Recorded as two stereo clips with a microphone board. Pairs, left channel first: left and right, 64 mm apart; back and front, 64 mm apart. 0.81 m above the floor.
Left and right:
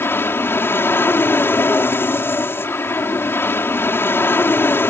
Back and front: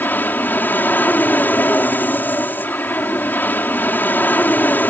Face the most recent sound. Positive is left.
turn(degrees=130)